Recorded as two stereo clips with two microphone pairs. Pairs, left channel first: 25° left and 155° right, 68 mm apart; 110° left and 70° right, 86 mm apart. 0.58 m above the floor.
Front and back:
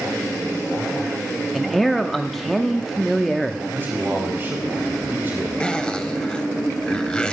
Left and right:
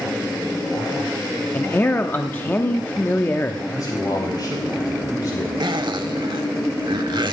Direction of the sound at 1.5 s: 110° left.